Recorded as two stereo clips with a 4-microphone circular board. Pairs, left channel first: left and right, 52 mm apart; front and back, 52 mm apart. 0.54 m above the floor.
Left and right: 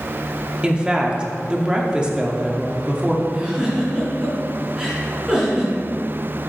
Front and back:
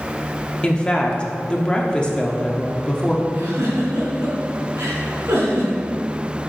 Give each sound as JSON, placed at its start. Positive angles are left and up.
{"t": 0.6, "sound": "a woman speaking", "azimuth_deg": -40, "distance_m": 0.9}
{"t": 3.3, "sound": "a giggle", "azimuth_deg": -165, "distance_m": 2.5}